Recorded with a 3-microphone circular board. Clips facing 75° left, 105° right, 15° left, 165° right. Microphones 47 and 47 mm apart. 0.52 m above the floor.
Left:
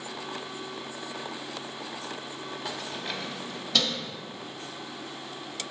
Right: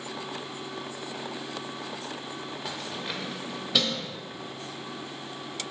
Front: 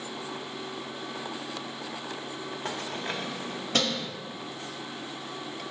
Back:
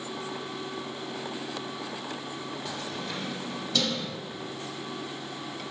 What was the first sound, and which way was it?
Keys jangling, 15° right.